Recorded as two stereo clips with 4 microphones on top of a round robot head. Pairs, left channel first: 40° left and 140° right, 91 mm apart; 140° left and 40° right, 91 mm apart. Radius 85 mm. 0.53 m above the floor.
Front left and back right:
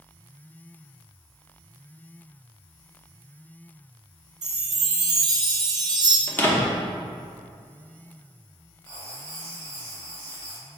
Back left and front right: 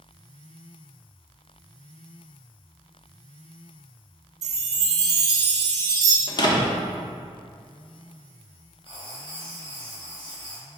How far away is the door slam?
About 0.8 m.